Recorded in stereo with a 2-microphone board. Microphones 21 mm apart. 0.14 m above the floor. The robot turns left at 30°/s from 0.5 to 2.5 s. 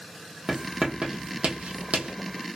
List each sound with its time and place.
0.5 s writing: 35° right (ahead or behind), 1.5 m; by 2.1 s 80° right, 1.5 m